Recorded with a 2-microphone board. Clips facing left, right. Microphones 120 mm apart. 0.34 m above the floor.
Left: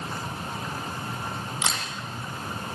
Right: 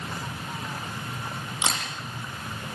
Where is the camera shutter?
25° right (ahead or behind), 9 m.